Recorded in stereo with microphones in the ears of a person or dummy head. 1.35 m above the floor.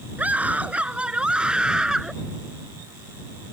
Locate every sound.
0.2 s a scream: 5° right (ahead or behind); by 2.1 s centre (ahead or behind)